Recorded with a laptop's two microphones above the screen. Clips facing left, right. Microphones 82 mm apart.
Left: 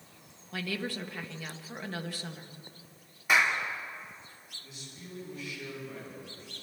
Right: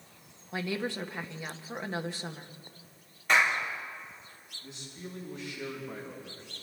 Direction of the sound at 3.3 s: 10° left (ahead or behind).